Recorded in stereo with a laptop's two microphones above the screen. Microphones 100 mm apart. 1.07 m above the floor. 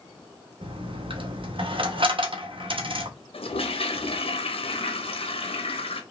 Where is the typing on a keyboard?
I don't hear typing on a keyboard.